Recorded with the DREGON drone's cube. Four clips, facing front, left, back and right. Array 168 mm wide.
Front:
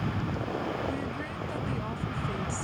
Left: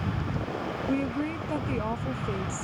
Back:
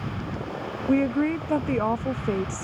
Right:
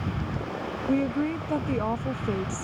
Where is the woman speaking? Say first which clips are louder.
Right 5 dB, back 12 dB; 170° right.